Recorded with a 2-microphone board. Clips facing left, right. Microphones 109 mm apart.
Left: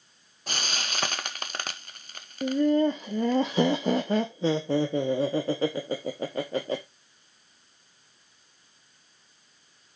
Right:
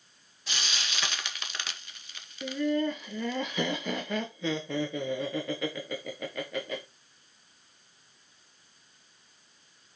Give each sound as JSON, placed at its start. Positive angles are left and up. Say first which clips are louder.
{"t": 0.5, "sound": "frying", "louder": "left 4 dB", "side_deg": 45, "distance_m": 0.9}
{"t": 2.4, "sound": "laughter", "louder": "left 6 dB", "side_deg": 35, "distance_m": 0.8}